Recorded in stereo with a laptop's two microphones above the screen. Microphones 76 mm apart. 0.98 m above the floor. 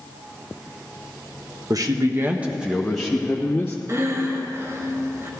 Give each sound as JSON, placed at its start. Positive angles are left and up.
{"t": 1.7, "sound": "a man speaking", "side_deg": -55, "distance_m": 0.9}
{"t": 3.9, "sound": "breathing", "side_deg": -40, "distance_m": 1.3}